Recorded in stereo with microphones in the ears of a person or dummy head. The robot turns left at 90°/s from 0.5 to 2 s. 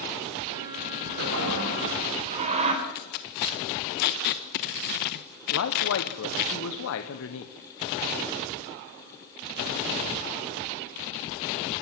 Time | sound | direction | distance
1.2 | a toilet flushing | 65° right | 3.5 m
2.8 | tape being pulled | 45° left (ahead or behind) | 1.3 m
5.5 | a man speaking | 70° left (ahead or behind) | 1.4 m